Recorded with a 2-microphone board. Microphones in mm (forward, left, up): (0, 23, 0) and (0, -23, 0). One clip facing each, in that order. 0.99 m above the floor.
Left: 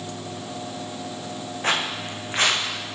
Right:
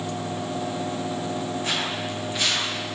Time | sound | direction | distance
1.6 | footsteps | 45° left (ahead or behind) | 3.5 m